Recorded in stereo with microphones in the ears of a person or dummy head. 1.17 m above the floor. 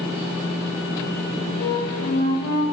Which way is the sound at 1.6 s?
65° left (ahead or behind).